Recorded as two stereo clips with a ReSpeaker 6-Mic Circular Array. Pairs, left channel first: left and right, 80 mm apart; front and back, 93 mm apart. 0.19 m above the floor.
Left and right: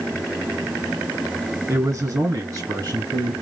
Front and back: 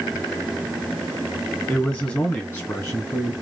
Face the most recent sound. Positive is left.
turn(degrees=-55)